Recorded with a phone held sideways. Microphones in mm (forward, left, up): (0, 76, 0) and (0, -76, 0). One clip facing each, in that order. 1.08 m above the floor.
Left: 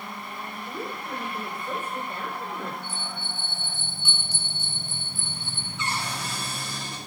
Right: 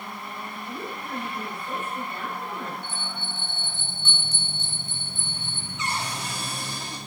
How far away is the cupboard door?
About 2.5 m.